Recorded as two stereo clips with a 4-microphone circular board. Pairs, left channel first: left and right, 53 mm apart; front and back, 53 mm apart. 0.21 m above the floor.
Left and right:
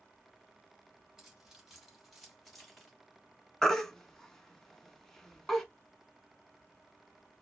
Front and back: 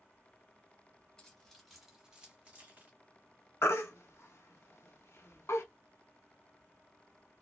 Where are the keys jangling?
25° right, 1.0 m; by 2.9 s 175° left, 1.2 m.